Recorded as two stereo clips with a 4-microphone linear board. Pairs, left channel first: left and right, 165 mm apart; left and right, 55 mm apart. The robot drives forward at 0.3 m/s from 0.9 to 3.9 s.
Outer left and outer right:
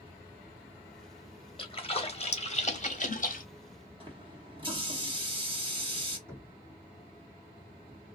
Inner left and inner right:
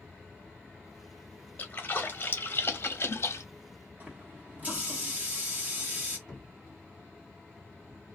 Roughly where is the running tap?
Right.